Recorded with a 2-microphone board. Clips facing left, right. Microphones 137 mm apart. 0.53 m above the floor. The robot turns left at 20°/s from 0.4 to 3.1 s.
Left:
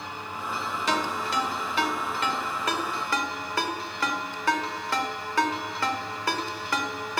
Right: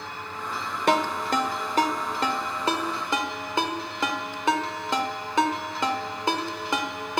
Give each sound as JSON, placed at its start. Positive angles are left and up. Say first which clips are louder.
{"t": 0.9, "sound": "a ringtone", "louder": "right 6 dB", "side_deg": -60, "distance_m": 1.4}